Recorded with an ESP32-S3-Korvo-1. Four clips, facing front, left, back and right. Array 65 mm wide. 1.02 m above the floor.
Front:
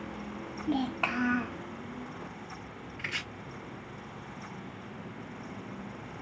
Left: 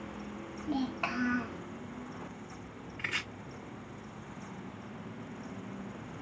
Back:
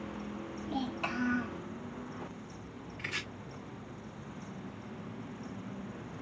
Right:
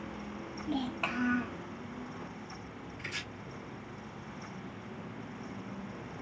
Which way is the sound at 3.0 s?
50° left.